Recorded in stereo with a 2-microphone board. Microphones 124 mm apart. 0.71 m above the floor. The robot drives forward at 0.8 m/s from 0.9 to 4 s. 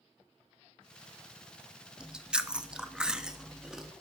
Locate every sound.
2.0 s chewing: 5° right (ahead or behind), 1.0 m